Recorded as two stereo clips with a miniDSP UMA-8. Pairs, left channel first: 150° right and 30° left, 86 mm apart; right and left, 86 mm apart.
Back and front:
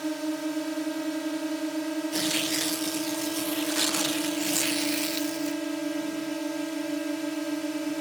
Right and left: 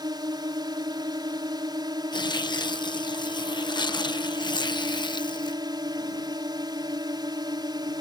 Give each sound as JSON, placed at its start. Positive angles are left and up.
{"t": 0.0, "sound": "a drone", "azimuth_deg": 120}
{"t": 2.1, "sound": "tearing paper", "azimuth_deg": -60}